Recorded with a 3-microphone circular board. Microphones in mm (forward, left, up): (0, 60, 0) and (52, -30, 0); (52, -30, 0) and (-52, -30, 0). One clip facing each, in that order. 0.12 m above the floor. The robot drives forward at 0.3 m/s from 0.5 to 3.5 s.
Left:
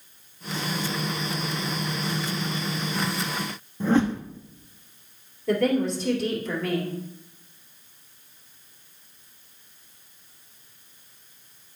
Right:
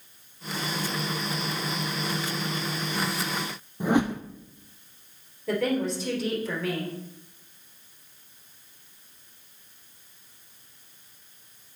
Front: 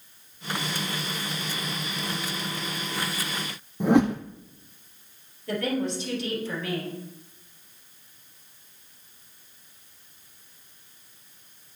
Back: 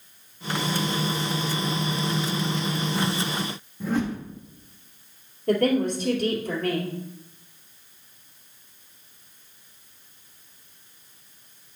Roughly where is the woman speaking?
Behind right.